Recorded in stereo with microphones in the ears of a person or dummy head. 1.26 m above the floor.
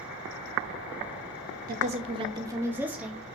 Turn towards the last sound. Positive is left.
turn(degrees=0)  # may be behind; listen again after turning